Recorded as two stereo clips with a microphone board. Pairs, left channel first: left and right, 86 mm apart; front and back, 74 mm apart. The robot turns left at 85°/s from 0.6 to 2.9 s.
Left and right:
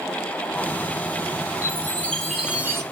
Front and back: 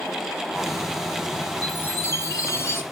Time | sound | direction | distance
1.6 | a chime | 55° left | 1.9 m